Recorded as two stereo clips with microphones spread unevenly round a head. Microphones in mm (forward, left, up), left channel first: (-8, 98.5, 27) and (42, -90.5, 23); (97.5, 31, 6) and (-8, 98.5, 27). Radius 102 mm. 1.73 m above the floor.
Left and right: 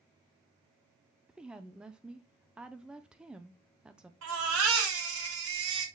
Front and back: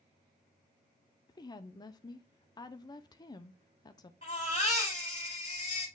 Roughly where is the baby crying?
Right.